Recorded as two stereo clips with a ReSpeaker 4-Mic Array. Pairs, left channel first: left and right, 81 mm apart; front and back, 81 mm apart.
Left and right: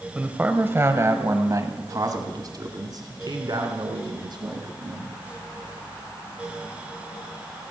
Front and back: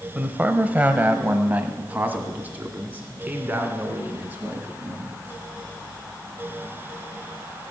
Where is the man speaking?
135° right, 0.9 m; by 5.1 s 110° right, 3 m.